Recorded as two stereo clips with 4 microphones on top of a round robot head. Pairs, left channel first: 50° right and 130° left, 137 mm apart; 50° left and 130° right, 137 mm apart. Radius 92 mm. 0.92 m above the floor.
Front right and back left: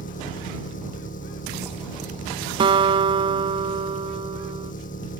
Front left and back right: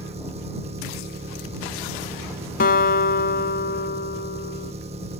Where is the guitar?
75° left.